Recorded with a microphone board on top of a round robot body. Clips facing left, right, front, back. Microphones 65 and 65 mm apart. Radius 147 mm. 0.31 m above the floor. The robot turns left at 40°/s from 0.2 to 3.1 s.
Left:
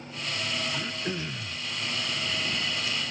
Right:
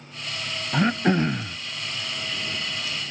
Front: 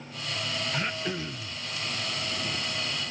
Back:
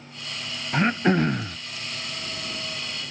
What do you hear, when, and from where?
0.7 s throat clearing: 120° right; by 1.6 s 155° right